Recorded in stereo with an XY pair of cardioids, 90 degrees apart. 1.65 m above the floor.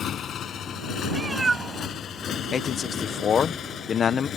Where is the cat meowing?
30° right.